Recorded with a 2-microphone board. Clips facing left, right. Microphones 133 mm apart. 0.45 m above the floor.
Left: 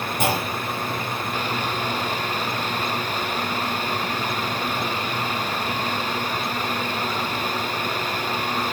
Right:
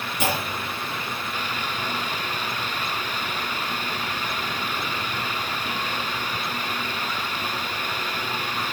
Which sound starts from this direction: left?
A clunk, at 0.2 s.